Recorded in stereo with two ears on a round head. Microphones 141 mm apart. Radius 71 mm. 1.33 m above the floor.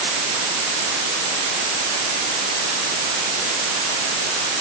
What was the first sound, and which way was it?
Only background noise.